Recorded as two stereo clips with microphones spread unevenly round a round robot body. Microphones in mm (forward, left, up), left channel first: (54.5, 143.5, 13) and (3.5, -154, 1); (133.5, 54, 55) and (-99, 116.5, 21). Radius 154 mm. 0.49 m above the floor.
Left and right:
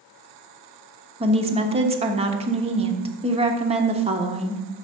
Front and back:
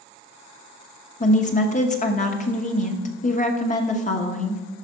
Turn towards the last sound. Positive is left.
turn(degrees=-55)